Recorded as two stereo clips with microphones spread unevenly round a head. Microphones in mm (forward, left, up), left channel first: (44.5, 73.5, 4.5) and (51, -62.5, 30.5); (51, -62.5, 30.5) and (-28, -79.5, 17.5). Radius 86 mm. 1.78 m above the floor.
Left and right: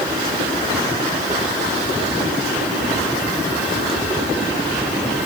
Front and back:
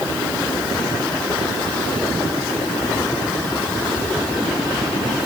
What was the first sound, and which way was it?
Only background noise.